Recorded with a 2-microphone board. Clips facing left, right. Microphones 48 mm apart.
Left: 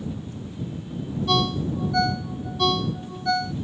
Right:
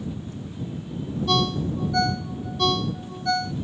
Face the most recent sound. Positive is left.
turn(degrees=0)  # may be behind; listen again after turning